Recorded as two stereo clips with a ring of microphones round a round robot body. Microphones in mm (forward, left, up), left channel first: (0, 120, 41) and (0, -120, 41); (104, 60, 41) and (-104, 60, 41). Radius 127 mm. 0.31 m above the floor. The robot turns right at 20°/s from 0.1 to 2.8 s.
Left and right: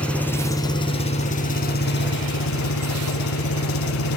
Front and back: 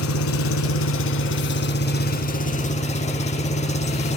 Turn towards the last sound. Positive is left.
turn(degrees=60)